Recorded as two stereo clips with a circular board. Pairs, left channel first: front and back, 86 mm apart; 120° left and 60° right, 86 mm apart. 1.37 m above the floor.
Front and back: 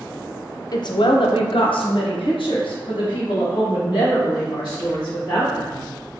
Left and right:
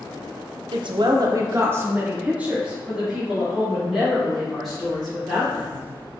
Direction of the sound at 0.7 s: 40° right.